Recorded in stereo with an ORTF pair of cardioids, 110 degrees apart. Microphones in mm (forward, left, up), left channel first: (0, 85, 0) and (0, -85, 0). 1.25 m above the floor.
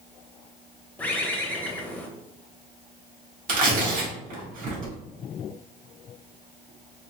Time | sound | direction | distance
1.0 | a bird | 10° left | 0.9 m
3.5 | tearing paper | 55° right | 1.8 m